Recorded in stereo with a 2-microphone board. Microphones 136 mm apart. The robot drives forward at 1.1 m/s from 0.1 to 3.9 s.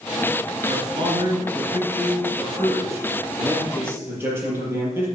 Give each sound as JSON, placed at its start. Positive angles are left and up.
{"t": 0.6, "sound": "a man speaking", "side_deg": -40, "distance_m": 2.0}